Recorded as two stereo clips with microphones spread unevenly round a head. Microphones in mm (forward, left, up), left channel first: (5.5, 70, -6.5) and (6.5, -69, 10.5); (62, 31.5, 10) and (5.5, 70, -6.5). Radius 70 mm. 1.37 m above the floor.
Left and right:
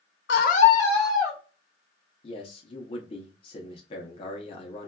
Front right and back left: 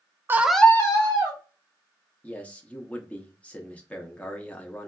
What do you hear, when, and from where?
0.3 s a scream: 85° left, 0.7 m; by 1.4 s 10° right, 1.3 m
2.2 s a man speaking: 35° left, 0.6 m